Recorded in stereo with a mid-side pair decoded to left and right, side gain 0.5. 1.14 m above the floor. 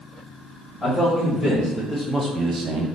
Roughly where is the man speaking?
Ahead left.